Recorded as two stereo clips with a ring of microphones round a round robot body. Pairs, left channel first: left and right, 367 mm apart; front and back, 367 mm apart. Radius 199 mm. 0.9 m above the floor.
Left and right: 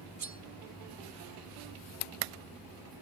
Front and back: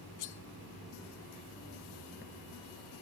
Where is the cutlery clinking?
40° right, 0.8 m.